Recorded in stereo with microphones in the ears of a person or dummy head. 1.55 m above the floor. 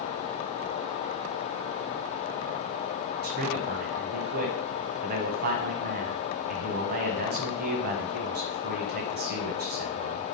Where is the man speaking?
40° right (ahead or behind), 1.3 m.